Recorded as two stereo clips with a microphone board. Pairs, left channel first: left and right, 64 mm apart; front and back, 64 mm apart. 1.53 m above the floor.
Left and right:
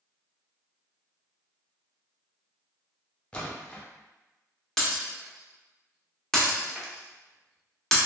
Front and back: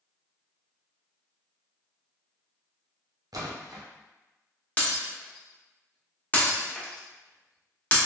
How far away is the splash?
About 0.7 m.